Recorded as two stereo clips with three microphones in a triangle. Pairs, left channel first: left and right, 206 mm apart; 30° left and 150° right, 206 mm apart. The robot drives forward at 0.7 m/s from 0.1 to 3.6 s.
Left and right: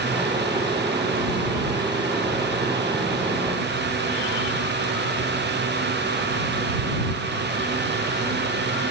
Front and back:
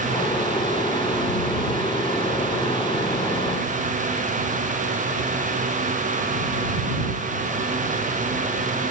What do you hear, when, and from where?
Only background noise.